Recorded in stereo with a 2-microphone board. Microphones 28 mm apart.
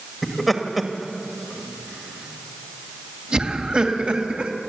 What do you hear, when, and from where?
0.2 s laughter: 5° left (ahead or behind), 2 m; by 4.5 s 40° right (ahead or behind), 3 m